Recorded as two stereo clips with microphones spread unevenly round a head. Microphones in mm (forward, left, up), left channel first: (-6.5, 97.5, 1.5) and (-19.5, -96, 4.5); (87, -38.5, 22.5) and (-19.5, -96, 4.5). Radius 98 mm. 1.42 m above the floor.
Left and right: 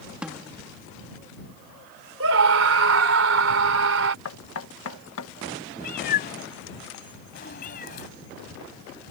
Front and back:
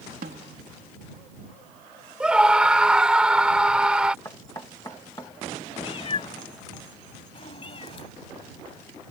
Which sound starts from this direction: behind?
A snare drum, at 0.2 s.